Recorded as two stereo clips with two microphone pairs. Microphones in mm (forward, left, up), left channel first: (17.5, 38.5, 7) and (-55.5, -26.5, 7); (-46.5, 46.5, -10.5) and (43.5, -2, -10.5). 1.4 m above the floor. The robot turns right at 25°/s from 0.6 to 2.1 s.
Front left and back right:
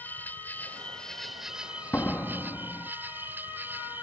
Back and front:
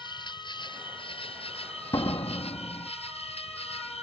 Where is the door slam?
110° left; by 2.9 s 115° left.